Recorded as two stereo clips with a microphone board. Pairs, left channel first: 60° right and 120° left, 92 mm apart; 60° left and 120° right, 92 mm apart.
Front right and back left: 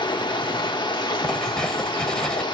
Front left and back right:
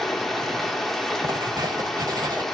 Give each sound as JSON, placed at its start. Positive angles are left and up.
{"t": 0.0, "sound": "running water", "azimuth_deg": -25, "distance_m": 0.8}
{"t": 1.2, "sound": "writing", "azimuth_deg": -140, "distance_m": 0.8}